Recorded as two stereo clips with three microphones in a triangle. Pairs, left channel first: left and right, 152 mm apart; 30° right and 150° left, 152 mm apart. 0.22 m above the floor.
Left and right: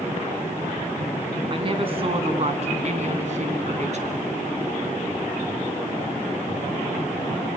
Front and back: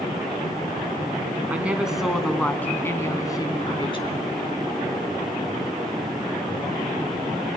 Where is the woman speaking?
135° right, 2 m; by 4.2 s 70° right, 2 m.